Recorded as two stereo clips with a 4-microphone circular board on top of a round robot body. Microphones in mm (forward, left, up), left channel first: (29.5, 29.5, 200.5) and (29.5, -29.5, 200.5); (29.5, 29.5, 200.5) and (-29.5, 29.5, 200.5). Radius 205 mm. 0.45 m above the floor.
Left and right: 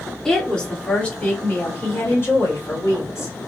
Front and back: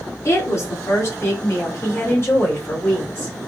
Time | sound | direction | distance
0.2 | a woman speaking | 10° left | 1.9 m